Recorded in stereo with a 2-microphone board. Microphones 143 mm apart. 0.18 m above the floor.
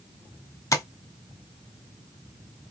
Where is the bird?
No bird in this recording.